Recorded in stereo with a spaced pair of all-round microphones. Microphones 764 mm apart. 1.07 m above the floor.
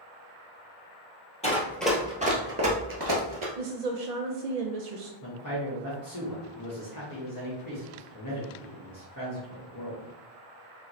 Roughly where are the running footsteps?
Centre.